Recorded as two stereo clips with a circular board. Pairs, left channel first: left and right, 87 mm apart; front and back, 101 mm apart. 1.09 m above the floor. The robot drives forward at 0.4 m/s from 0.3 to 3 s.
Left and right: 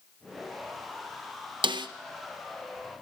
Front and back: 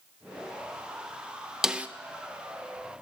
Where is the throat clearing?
No throat clearing in this recording.